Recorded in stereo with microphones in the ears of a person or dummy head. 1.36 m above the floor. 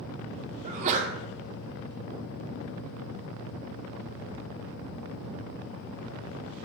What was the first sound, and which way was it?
A sneeze, 45° right (ahead or behind).